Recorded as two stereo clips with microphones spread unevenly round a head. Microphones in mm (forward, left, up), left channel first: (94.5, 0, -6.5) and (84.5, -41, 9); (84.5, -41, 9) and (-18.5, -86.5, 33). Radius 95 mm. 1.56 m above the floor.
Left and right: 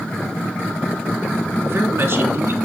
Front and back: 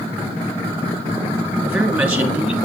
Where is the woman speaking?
75° right, 4 m.